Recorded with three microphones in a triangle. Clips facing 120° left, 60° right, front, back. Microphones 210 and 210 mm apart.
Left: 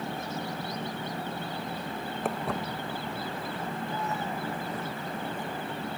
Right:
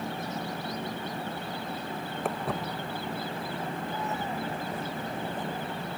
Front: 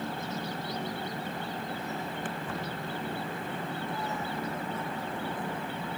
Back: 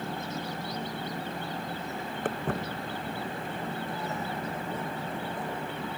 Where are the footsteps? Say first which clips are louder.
Even, back 4 dB; 150° right; by 5.7 s 110° right.